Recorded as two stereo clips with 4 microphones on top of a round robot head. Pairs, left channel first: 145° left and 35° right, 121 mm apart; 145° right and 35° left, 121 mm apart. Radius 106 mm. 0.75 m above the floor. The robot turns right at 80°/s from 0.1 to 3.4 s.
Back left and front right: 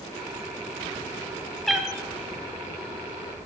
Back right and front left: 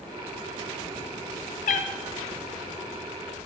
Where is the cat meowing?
125° right, 0.5 m; by 1.9 s 110° right, 0.5 m.